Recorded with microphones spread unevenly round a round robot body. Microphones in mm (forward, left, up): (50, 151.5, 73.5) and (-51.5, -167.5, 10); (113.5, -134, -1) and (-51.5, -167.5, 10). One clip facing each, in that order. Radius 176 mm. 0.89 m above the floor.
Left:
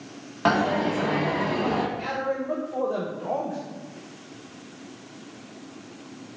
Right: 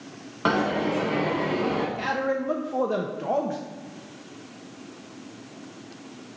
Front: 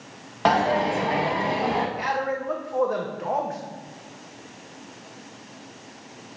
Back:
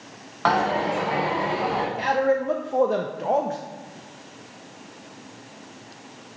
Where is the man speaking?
110° right, 0.7 m.